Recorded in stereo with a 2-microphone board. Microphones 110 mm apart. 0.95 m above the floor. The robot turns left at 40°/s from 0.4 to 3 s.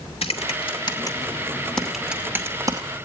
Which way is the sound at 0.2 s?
60° left (ahead or behind).